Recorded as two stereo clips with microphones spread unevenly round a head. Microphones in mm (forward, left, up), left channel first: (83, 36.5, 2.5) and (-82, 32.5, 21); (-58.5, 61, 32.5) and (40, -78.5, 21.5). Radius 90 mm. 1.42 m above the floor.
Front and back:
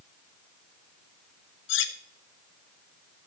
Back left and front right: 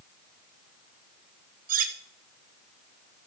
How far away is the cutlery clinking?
About 1.3 m.